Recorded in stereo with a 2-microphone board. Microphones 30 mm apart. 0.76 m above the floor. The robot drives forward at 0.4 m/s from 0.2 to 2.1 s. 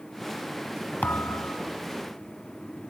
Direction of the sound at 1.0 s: 70° left (ahead or behind).